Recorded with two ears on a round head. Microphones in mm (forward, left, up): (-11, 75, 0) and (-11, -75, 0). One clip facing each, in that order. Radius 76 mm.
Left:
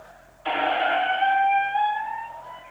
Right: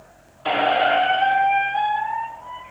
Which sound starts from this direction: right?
A squeak, at 0.5 s.